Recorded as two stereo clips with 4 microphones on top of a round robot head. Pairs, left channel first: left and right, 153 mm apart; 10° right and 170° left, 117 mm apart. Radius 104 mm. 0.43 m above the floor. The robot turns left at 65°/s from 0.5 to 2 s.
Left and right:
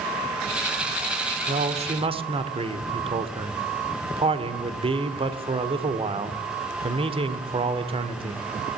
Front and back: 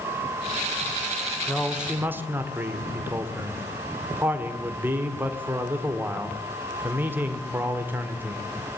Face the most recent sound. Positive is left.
turn(degrees=-125)